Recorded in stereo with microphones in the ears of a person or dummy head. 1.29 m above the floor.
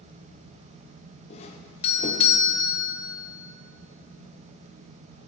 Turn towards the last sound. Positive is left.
turn(degrees=30)  # may be behind; listen again after turning